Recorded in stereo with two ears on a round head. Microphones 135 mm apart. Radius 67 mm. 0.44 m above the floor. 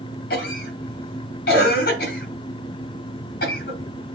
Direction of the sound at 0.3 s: 65° left (ahead or behind).